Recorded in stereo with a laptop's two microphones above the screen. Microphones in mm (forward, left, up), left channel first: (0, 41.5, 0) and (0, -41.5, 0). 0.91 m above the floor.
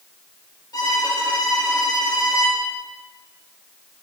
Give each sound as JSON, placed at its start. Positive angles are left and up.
{"t": 0.7, "sound": "a violin", "side_deg": 55, "distance_m": 3.5}